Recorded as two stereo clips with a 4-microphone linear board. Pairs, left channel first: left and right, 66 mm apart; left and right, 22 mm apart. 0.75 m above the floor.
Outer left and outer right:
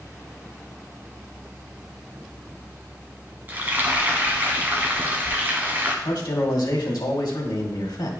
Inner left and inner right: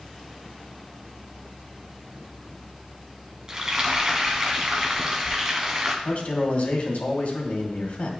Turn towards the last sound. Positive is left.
turn(degrees=70)  # may be behind; listen again after turning